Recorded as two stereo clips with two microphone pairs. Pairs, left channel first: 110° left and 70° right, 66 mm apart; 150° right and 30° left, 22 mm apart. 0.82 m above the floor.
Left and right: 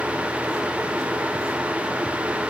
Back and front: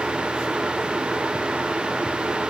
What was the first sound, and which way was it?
Only background noise.